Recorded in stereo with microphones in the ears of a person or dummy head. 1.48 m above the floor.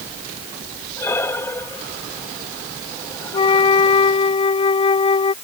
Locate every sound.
1.0 s breathing: 15° left (ahead or behind)
3.3 s a flute: 35° left (ahead or behind)